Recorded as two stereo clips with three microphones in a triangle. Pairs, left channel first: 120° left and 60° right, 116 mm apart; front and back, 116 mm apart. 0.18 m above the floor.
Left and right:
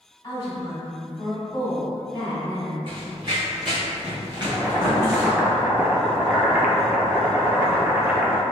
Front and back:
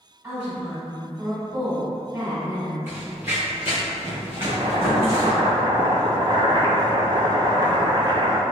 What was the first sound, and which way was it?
A woman speaking, 135° left.